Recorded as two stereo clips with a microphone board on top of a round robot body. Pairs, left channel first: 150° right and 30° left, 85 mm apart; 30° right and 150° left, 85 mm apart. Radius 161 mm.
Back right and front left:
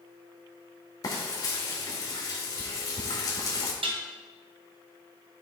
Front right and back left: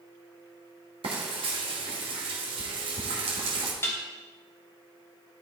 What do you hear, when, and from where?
1.0 s frying: 160° left, 1.3 m
3.8 s dishes clattering: 35° left, 1.2 m